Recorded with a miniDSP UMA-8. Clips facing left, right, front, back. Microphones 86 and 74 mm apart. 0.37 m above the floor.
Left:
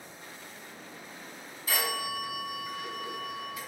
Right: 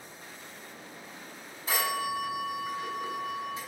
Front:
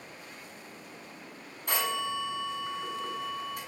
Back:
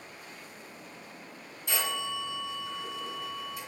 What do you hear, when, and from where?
1.7 s a phone ringing: 30° right, 2 m